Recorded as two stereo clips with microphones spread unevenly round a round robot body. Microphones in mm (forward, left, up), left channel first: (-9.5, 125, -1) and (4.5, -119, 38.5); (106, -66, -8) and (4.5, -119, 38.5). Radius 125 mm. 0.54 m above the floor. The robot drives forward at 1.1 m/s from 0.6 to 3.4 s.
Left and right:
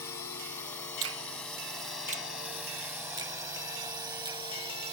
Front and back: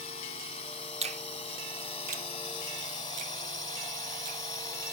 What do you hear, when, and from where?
0.0 s a drone: 15° left; by 4.9 s 15° right
1.0 s a finger snap: 115° right; by 4.4 s 160° right